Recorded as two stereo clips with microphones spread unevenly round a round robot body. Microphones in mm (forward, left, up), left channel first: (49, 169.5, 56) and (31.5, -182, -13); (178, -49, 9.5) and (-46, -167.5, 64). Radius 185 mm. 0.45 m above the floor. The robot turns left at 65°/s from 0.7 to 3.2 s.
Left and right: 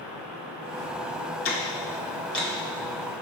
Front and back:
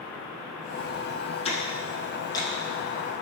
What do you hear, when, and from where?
1.4 s ticking: 45° left, 1.6 m; by 2.5 s 25° right, 1.6 m